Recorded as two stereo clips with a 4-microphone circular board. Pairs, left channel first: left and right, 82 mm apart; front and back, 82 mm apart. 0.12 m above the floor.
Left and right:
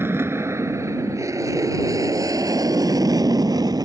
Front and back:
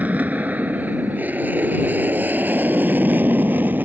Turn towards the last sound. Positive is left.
turn(degrees=-115)